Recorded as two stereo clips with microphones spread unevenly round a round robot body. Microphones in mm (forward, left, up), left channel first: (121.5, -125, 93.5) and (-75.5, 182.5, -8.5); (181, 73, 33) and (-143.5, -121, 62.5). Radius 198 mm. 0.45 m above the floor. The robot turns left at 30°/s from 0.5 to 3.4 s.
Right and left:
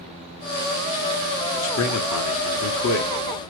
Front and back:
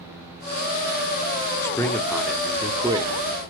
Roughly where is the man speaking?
Ahead right.